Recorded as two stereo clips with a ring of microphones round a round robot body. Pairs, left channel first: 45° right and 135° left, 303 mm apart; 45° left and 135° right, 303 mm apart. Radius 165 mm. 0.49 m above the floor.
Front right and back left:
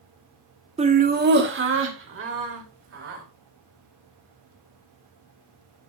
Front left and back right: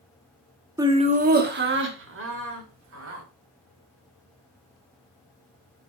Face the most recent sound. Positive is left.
turn(degrees=180)